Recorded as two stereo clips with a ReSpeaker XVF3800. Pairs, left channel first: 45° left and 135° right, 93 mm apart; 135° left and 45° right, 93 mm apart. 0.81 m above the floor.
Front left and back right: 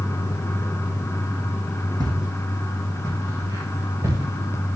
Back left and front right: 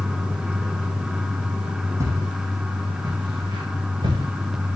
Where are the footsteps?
100° right, 2.5 m; by 4.8 s 75° right, 5.5 m.